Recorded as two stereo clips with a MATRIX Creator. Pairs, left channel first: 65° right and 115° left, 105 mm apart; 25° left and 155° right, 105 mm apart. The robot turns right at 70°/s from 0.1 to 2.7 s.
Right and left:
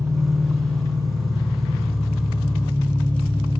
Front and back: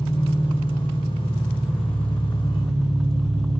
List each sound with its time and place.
0.0 s an engine running: 170° left, 6.5 m; by 3.6 s 5° right, 6.5 m